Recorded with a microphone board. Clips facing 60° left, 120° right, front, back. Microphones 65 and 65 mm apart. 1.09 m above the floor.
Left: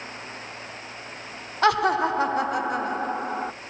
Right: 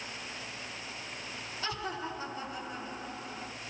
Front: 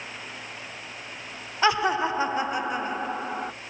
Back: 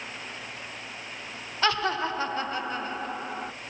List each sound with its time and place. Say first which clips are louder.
1.6 s laughter: left 18 dB, front 4 dB; 75° left, 0.6 m